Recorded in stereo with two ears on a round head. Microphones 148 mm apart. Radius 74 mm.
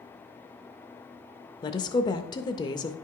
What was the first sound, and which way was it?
A woman speaking, 25° left (ahead or behind).